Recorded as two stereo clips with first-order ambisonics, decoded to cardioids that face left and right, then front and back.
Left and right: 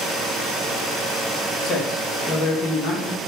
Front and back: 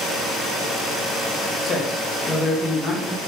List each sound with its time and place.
1.6 s a man speaking: 60° left, 0.6 m